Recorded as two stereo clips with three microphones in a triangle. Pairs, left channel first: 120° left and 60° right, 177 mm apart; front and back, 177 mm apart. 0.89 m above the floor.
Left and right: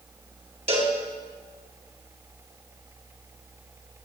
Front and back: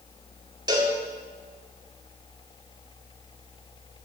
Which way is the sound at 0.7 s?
115° right.